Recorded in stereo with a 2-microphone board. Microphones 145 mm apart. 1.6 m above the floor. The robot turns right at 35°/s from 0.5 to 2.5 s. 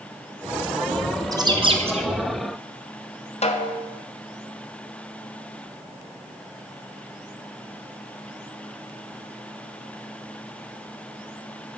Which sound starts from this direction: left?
A snare drum, at 3.4 s.